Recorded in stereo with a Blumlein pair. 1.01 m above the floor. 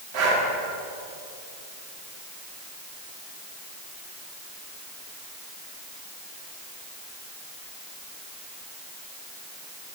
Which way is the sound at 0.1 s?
45° right.